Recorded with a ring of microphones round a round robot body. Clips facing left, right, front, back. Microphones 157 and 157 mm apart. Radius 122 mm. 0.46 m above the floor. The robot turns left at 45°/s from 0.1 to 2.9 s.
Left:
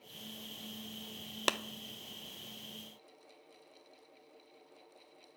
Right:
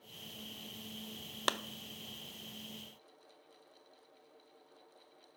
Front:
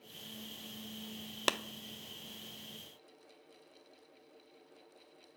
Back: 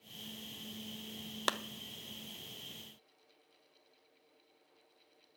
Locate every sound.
1.5 s a clap: 40° left, 0.7 m; by 1.6 s 35° left, 0.7 m